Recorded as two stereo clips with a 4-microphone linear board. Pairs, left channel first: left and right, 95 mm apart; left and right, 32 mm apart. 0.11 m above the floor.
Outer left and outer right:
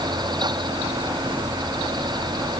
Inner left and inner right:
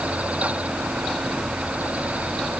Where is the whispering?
No whispering in this recording.